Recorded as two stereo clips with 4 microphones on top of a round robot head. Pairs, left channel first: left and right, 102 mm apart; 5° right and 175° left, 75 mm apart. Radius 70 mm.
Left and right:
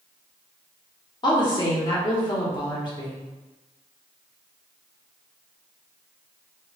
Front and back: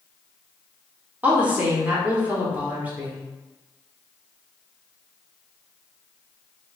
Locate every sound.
1.2 s a woman speaking: 110° left, 1.4 m